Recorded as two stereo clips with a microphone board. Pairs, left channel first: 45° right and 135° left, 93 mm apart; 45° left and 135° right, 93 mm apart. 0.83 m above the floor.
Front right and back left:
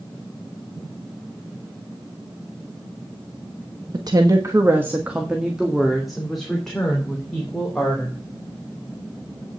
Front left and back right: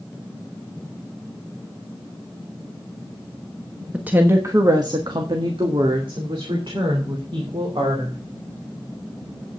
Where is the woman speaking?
150° left, 1.1 m; by 8.2 s 125° right, 4 m.